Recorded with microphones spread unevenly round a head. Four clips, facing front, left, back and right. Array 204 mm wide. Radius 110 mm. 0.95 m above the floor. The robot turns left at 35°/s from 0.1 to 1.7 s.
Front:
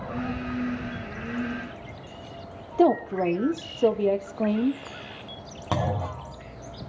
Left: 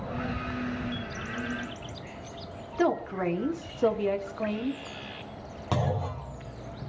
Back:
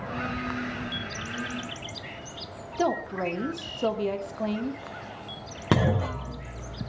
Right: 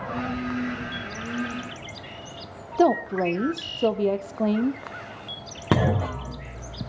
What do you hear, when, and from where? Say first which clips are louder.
2.8 s a woman speaking: right 6 dB, front 6 dB; 45° right, 2 m
5.7 s a clunk: right 7 dB, back 3 dB; 110° right, 1.4 m